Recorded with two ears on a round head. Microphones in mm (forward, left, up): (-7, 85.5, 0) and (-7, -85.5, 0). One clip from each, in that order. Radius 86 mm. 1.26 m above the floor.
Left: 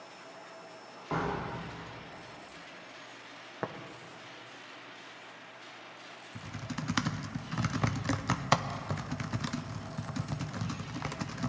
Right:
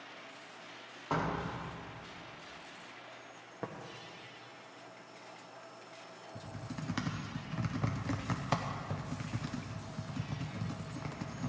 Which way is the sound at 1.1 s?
60° right (ahead or behind).